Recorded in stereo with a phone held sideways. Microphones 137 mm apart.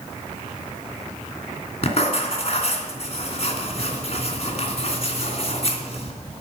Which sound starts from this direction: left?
Writing, at 1.8 s.